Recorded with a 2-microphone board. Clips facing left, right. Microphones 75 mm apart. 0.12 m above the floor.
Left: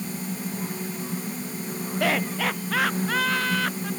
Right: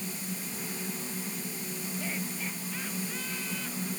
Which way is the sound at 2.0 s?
75° left (ahead or behind).